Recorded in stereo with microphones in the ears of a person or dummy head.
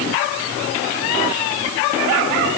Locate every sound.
Only background noise.